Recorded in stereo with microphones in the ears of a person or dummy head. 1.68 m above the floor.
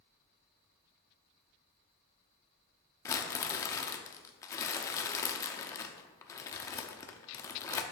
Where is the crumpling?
20° left (ahead or behind), 0.5 m.